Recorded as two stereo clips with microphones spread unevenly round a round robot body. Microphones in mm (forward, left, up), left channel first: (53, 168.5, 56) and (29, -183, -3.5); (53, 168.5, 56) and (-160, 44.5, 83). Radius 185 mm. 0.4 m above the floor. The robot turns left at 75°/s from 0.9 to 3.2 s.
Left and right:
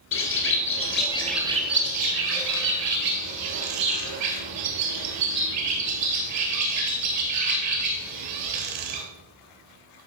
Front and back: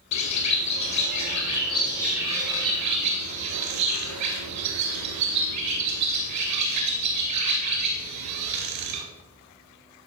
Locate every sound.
0.1 s a bird: 30° left, 2 m; by 9.0 s 145° right, 2 m